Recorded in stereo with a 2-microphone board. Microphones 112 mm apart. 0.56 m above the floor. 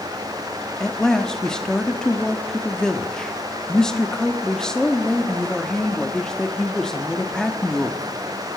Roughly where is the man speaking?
Centre.